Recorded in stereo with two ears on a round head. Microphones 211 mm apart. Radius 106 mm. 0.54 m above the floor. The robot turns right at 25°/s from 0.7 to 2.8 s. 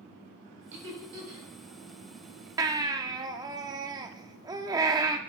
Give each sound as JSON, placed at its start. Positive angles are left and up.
{"t": 0.7, "sound": "laughter", "side_deg": -55, "distance_m": 3.0}
{"t": 2.6, "sound": "a baby crying", "side_deg": -15, "distance_m": 0.6}